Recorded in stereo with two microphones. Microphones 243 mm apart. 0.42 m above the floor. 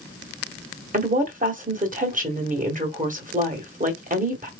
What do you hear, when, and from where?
0.9 s a woman speaking: 35° right (ahead or behind), 1.8 m